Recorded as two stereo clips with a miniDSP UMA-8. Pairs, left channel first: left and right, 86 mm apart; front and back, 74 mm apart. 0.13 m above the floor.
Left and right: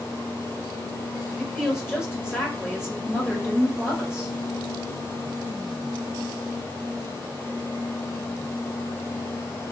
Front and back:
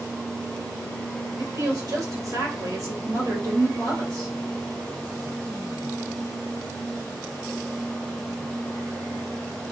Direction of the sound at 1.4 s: 170° right.